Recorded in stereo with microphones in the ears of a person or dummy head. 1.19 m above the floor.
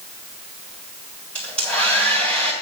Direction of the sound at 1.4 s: 5° left (ahead or behind).